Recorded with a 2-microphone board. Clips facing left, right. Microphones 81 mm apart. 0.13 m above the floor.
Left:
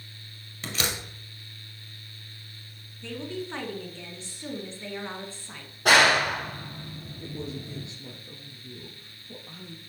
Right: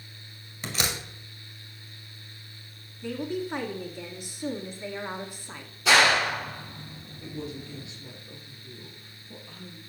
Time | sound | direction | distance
0.6 | a door slam | 5° right (ahead or behind) | 2.0 m
3.0 | a woman speaking | 15° right (ahead or behind) | 1.2 m
5.8 | a clap | 60° left (ahead or behind) | 2 m
7.2 | a man speaking | 40° left (ahead or behind) | 2.5 m